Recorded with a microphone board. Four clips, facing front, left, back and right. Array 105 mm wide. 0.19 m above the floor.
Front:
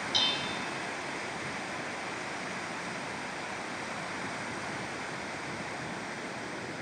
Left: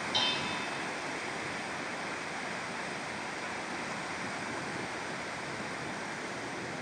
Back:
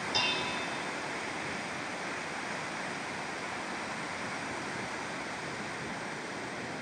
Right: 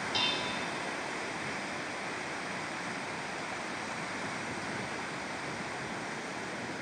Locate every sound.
0.1 s dishes clattering: 165° right, 1.0 m